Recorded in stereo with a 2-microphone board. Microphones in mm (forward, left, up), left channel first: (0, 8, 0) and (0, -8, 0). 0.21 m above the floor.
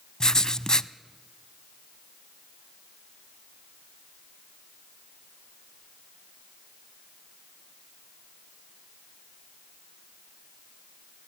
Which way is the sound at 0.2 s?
45° left (ahead or behind).